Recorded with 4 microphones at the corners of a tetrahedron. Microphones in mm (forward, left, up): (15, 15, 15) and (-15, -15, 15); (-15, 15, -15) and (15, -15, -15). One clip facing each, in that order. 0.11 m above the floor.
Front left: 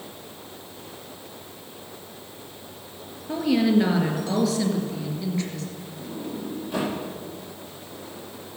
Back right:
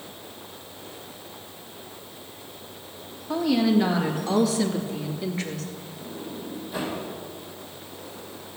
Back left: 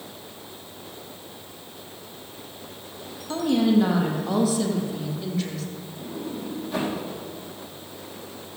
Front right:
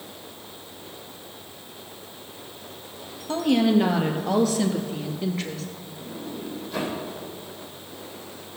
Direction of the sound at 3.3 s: 15° right.